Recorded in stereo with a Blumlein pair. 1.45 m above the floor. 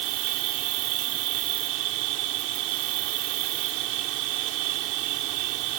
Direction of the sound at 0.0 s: 40° right.